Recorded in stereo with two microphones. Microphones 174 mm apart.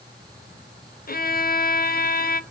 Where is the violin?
55° left (ahead or behind), 0.5 m.